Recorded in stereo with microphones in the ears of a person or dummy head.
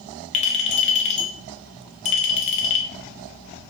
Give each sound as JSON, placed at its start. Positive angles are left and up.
{"t": 0.3, "sound": "a clink", "side_deg": 30, "distance_m": 0.8}